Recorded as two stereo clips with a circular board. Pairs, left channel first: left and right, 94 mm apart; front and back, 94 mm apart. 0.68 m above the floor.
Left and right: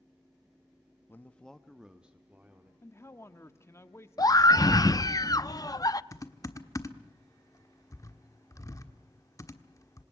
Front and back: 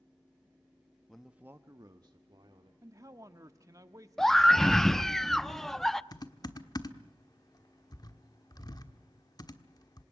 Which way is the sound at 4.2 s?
85° left.